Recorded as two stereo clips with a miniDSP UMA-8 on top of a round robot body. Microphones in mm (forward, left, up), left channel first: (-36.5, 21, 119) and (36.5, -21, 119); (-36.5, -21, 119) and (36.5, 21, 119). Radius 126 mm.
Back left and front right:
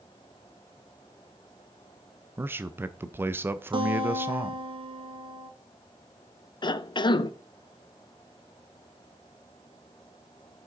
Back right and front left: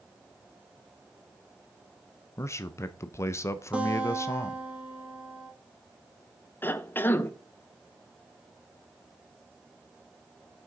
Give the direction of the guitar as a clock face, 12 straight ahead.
2 o'clock.